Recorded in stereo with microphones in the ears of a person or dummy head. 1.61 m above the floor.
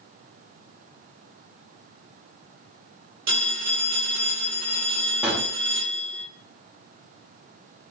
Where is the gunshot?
5° right (ahead or behind), 0.5 m.